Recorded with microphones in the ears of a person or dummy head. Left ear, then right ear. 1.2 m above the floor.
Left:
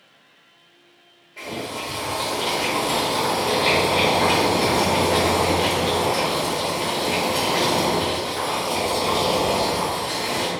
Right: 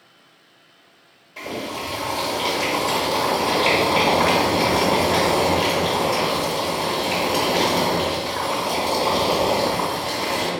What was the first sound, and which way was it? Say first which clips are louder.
Boiling: right 1 dB; 45° right (ahead or behind).